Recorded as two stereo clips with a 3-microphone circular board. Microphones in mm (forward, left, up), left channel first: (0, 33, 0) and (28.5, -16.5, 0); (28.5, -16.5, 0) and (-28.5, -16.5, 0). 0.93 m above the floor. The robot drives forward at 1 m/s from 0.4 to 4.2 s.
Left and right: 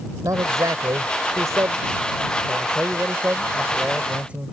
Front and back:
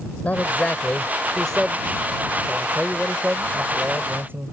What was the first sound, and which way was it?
A man speaking, 60° right.